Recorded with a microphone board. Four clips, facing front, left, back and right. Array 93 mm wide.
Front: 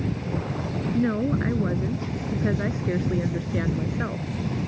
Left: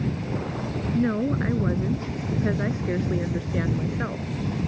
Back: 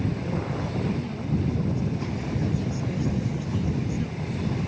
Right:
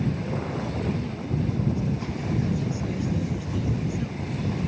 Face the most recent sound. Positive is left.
turn(degrees=45)